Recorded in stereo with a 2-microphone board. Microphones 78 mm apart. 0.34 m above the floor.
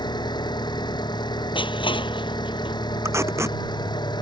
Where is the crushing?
85° left.